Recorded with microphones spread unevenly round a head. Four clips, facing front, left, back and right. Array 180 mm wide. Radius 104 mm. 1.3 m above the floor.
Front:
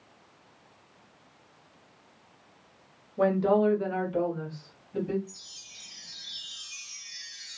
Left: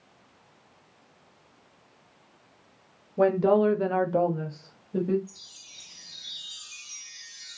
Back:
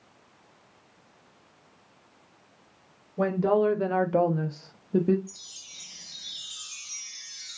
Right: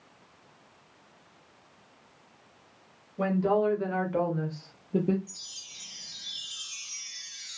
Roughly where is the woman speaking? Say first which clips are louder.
Left 5 dB, even; left.